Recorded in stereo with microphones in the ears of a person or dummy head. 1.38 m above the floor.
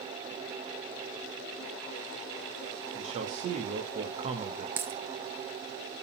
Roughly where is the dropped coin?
Centre.